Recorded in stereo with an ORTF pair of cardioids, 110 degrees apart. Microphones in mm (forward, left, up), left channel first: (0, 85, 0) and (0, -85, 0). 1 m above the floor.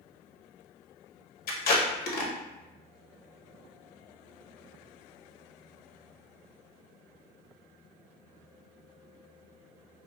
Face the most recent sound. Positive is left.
turn(degrees=65)